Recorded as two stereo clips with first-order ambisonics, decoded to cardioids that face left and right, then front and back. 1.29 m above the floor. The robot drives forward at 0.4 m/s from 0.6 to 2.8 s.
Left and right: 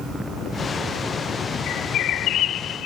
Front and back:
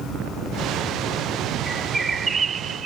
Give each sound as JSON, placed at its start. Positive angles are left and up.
{"t": 1.7, "sound": "a bird", "azimuth_deg": 100}